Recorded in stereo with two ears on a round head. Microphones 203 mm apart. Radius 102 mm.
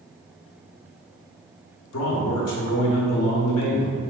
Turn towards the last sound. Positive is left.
turn(degrees=75)  # may be behind; listen again after turning